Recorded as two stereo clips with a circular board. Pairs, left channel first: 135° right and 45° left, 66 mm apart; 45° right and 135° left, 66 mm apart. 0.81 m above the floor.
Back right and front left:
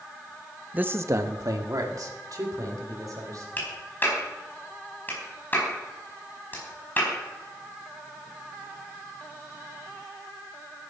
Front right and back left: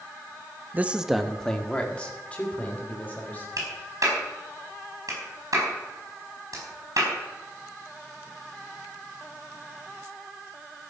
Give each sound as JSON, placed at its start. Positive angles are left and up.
{"t": 0.7, "sound": "a man speaking", "azimuth_deg": 100, "distance_m": 0.7}
{"t": 3.6, "sound": "a clap", "azimuth_deg": 165, "distance_m": 5.0}